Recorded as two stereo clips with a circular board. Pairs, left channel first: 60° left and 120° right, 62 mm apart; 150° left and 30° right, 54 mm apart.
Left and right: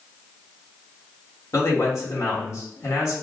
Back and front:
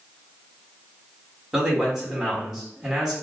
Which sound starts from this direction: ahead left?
A man speaking, at 1.5 s.